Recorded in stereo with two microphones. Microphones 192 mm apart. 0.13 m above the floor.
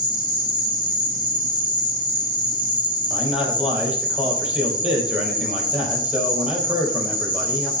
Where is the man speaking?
5° right (ahead or behind), 4.5 m.